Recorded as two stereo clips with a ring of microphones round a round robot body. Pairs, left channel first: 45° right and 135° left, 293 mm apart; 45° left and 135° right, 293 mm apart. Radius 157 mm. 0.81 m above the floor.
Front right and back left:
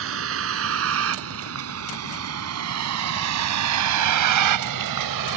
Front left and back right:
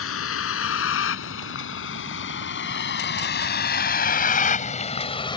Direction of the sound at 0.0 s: 90° left.